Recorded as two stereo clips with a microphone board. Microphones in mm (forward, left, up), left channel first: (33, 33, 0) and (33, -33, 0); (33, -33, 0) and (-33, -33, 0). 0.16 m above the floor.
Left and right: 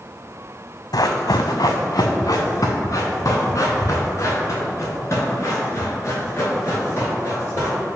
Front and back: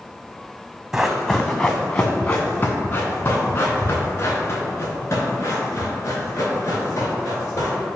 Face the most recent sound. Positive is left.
turn(degrees=40)